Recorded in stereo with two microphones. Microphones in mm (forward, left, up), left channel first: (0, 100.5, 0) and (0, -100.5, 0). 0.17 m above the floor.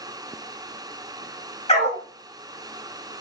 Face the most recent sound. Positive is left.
turn(degrees=30)  # may be behind; listen again after turning